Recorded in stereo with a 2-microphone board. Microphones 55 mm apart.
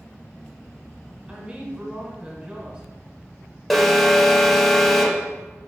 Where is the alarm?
Centre (ahead or behind), 0.8 m.